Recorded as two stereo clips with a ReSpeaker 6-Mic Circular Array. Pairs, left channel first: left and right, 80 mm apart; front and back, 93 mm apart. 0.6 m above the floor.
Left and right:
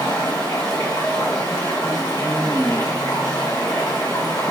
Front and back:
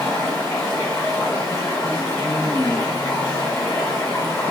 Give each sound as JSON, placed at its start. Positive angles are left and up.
{"t": 0.0, "sound": "running water", "azimuth_deg": 65, "distance_m": 1.3}